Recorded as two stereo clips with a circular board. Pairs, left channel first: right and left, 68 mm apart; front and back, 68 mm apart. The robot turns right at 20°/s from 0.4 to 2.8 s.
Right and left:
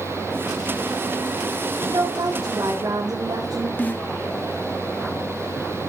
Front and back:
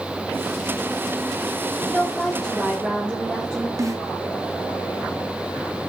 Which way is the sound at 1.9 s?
85° left.